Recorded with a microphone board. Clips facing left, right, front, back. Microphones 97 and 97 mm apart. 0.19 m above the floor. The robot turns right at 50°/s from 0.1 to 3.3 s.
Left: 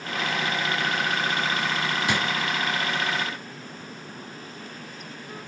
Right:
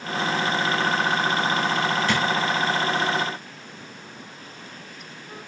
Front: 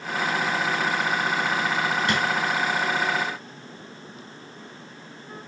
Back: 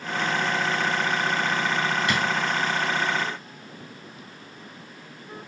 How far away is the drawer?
About 0.9 m.